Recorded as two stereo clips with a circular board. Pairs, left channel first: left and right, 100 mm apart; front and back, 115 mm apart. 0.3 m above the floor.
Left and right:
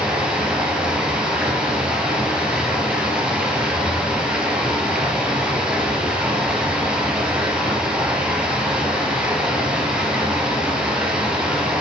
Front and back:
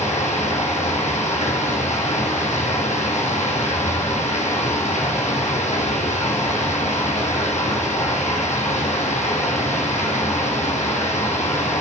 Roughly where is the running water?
Ahead.